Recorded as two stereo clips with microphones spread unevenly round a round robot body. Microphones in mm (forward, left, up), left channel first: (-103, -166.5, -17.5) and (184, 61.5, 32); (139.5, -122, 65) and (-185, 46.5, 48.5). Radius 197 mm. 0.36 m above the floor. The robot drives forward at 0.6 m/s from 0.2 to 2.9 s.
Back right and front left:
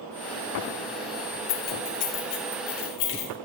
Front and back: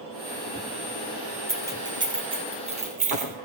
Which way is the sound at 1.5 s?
125° right.